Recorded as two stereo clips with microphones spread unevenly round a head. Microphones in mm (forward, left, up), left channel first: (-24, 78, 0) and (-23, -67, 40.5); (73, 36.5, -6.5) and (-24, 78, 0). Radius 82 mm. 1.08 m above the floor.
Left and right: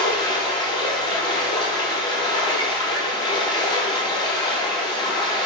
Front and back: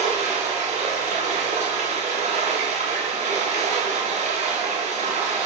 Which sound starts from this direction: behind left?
Running water, at 0.0 s.